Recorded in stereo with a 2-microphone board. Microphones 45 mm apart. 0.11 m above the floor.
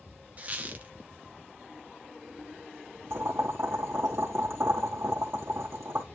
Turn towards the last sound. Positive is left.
turn(degrees=-70)  # may be behind; listen again after turning